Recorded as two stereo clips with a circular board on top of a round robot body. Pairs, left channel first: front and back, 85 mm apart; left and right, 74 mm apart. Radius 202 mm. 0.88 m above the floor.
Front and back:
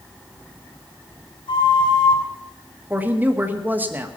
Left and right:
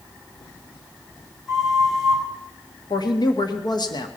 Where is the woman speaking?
110° left, 1.7 m.